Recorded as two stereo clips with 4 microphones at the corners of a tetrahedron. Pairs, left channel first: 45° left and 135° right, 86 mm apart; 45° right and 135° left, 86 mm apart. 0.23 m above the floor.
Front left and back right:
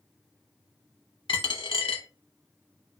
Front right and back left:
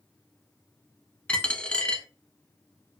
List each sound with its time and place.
1.3 s a dropped coin: 30° left, 0.5 m